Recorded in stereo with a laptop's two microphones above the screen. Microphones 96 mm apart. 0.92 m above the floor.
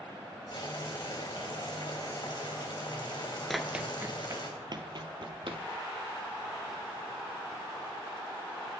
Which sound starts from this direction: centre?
Running footsteps, at 3.5 s.